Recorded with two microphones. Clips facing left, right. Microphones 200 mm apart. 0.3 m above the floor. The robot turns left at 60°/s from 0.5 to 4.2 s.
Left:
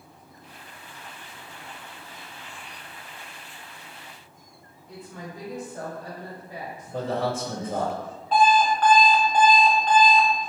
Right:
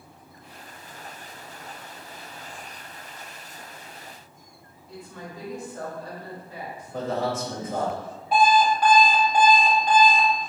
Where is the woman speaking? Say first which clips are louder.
Even; 20° left (ahead or behind), 0.9 m.